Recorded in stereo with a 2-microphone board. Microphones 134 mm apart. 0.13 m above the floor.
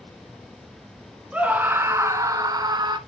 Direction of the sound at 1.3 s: 10° right (ahead or behind).